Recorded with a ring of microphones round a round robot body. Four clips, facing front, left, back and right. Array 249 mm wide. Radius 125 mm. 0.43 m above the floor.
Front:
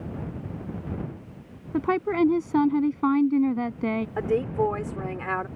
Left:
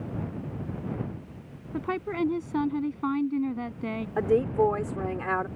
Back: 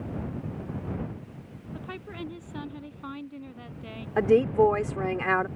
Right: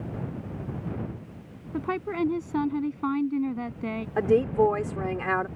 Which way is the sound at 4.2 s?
160° right.